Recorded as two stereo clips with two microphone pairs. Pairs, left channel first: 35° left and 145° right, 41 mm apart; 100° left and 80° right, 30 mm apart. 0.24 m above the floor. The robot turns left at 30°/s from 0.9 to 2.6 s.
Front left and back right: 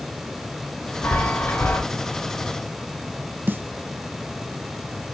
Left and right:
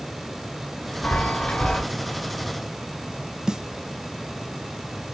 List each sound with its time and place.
1.0 s a chime: 65° left, 1.7 m; by 1.8 s 40° left, 1.7 m
3.5 s a snare drum: 140° right, 0.5 m